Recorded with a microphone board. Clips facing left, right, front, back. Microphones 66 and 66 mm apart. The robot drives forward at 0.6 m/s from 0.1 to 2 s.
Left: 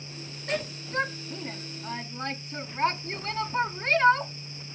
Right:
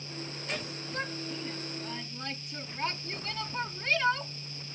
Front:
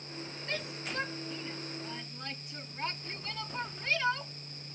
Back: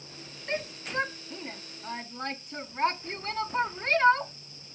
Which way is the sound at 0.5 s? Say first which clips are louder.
Left 8 dB, back 6 dB; 120° left.